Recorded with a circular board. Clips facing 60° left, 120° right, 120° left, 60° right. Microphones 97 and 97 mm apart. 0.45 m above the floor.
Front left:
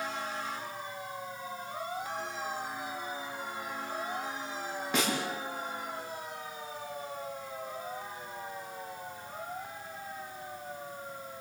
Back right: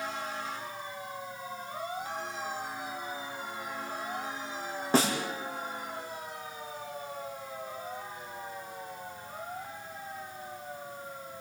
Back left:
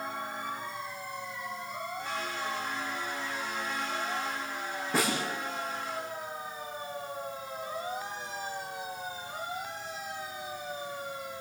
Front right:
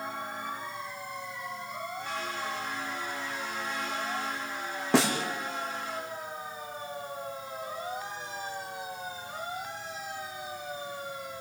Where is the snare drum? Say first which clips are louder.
Back right 5 dB, front right 5 dB; 65° right, 5 m.